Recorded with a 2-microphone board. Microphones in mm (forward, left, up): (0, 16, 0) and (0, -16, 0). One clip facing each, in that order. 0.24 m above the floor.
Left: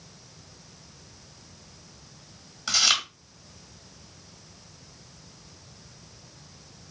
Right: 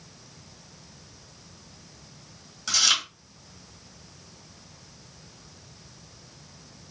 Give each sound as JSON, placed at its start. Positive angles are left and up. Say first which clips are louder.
{"t": 2.7, "sound": "chewing", "louder": "even", "side_deg": 15, "distance_m": 1.7}